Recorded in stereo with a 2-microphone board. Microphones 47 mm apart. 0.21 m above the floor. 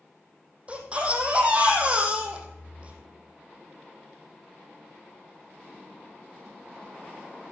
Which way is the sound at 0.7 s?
25° right (ahead or behind).